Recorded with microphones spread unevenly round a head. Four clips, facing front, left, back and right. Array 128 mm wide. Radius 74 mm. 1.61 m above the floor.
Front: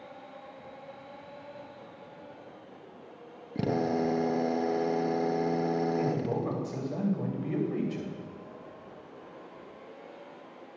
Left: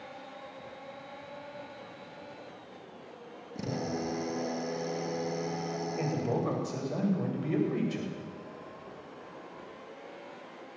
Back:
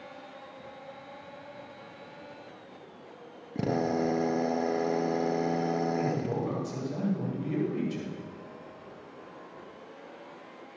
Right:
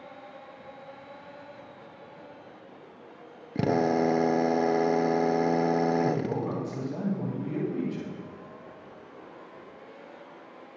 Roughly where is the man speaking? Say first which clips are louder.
Right 4 dB, even; ahead left.